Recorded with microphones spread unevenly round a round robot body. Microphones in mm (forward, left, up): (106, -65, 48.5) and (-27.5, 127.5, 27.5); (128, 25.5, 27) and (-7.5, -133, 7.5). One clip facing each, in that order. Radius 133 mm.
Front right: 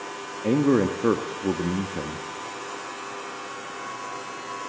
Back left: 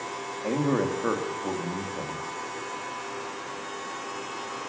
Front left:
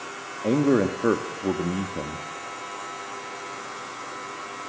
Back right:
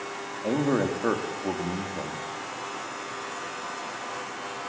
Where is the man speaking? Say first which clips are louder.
Front right 6 dB, front left 4 dB; 10° right, 1.7 m.